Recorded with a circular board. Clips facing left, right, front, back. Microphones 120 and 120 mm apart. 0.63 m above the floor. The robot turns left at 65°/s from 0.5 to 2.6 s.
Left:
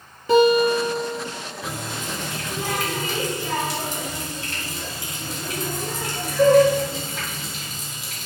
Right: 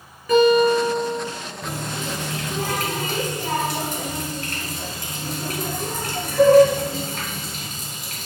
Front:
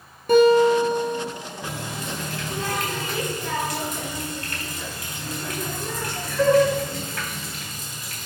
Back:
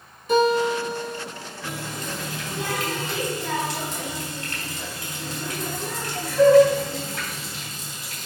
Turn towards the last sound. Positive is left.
turn(degrees=-120)